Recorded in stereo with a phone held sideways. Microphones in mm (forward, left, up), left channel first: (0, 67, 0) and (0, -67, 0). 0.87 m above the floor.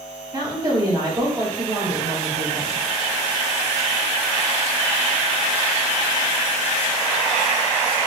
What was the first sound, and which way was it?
A woman speaking, 30° right (ahead or behind).